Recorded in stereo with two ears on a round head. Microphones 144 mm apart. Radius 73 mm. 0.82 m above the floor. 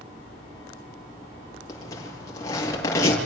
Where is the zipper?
20° left (ahead or behind), 7.5 m.